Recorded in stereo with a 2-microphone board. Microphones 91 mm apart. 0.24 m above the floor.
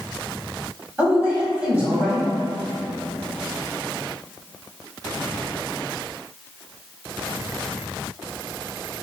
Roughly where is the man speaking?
Centre.